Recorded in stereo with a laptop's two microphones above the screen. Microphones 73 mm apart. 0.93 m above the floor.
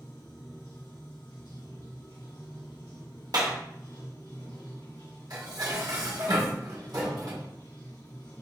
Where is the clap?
65° right (ahead or behind), 0.8 m.